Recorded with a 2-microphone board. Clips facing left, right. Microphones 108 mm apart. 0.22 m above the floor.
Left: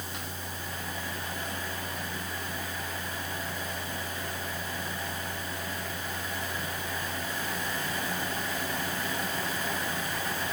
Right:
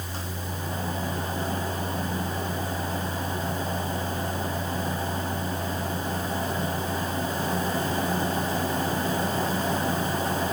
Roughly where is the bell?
I don't hear a bell.